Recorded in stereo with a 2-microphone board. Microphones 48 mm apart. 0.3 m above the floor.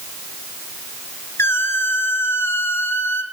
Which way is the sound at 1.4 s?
60° left (ahead or behind).